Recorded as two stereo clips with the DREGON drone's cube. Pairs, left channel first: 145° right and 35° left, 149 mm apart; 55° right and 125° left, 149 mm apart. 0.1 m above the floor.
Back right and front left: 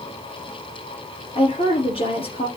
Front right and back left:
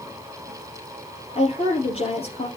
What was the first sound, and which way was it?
A woman speaking, 100° right.